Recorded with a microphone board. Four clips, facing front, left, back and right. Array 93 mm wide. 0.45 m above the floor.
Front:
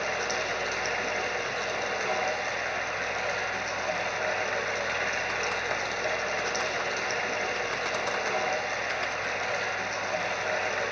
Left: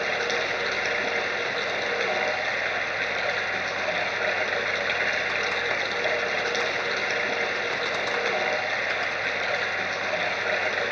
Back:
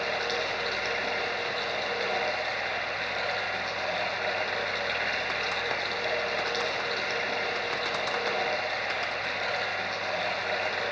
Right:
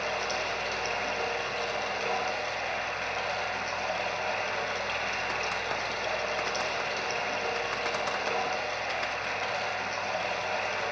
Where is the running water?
75° left, 2.5 m.